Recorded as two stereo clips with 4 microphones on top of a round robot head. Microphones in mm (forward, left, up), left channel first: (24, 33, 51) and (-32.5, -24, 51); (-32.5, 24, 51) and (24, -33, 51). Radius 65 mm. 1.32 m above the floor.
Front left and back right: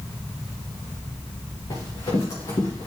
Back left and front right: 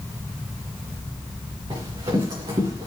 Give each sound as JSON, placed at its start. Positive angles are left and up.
{"t": 1.7, "sound": "running footsteps", "azimuth_deg": 0, "distance_m": 5.5}